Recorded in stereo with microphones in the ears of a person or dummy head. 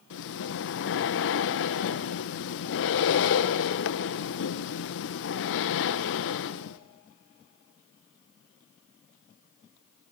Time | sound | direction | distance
0.1 | breathing | 60° left (ahead or behind) | 0.9 m